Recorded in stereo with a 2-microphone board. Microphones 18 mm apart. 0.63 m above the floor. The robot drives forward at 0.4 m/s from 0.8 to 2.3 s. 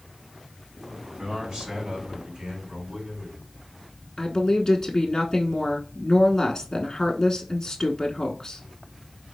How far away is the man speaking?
About 3 m.